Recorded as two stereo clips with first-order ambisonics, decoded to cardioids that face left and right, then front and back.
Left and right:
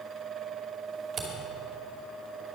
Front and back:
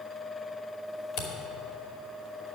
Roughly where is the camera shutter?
Ahead right.